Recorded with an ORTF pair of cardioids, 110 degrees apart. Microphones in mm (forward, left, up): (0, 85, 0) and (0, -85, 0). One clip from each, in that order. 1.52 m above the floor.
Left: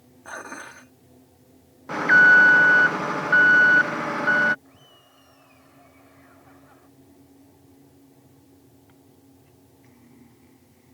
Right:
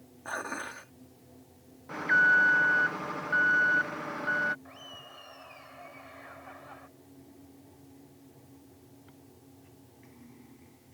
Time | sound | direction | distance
0.2 | dishes clattering | 10° right | ?
1.9 | an alarm | 45° left | ?
4.7 | laughter | 50° right | ?